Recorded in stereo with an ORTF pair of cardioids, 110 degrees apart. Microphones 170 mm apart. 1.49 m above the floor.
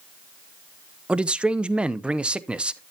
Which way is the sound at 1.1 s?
5° right.